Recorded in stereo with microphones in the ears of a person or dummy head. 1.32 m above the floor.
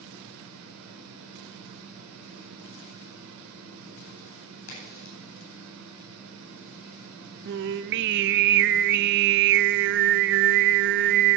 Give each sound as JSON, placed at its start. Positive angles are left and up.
{"t": 0.0, "sound": "a fan", "side_deg": -80, "distance_m": 3.0}
{"t": 4.7, "sound": "a crack", "side_deg": 75, "distance_m": 9.0}
{"t": 7.5, "sound": "singing", "side_deg": -50, "distance_m": 0.5}